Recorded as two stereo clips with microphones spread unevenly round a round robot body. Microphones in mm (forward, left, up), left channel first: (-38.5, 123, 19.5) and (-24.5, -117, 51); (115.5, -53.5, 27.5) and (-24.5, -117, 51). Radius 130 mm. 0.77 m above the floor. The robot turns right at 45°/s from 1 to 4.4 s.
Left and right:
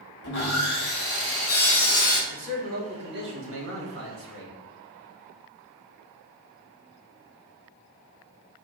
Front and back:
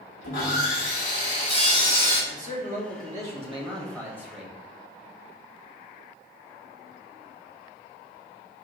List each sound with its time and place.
0.2 s sawing: 50° left, 0.9 m; by 2.2 s 105° left, 0.9 m
2.3 s a man speaking: 155° right, 1.2 m; by 4.6 s 60° right, 1.2 m